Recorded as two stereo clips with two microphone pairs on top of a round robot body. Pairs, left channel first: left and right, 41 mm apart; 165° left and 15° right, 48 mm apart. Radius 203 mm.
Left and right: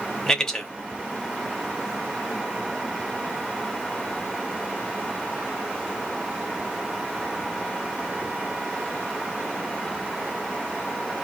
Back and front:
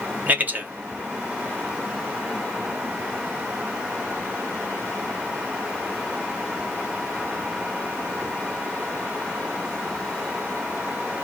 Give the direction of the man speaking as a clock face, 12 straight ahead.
12 o'clock.